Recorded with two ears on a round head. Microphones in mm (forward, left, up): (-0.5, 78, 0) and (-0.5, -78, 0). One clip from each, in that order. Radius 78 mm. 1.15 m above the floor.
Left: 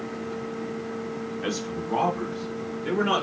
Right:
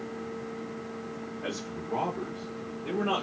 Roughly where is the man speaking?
Left.